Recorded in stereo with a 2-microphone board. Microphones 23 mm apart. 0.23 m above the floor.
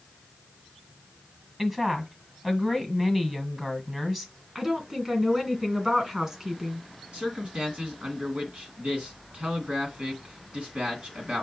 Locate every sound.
1.6 s a woman speaking: 15° right (ahead or behind), 1.5 m
4.5 s a woman speaking: 25° right (ahead or behind), 1.8 m
7.1 s a man speaking: 55° right (ahead or behind), 2 m